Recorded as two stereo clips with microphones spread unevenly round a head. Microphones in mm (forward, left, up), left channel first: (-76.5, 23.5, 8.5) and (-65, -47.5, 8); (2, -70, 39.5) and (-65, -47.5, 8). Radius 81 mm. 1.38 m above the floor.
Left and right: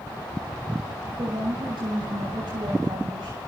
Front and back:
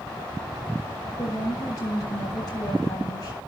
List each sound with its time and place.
1.2 s a woman speaking: 50° right, 5 m